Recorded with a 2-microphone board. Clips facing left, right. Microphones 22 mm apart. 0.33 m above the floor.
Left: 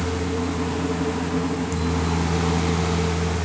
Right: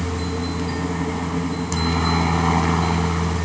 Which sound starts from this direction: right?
A helicopter, at 0.0 s.